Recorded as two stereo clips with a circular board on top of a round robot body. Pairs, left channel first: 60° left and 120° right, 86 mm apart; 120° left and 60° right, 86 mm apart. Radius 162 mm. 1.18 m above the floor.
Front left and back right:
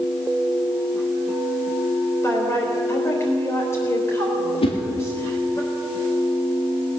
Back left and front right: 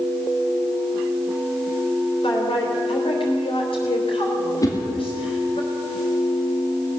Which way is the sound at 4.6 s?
70° left.